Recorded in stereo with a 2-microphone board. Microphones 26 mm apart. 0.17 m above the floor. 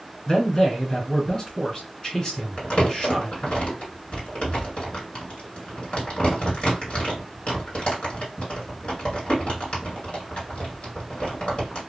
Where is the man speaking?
30° left (ahead or behind), 2 m.